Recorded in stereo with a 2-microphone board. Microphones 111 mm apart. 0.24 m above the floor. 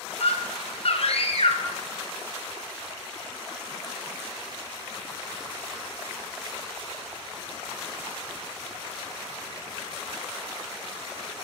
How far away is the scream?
About 2 m.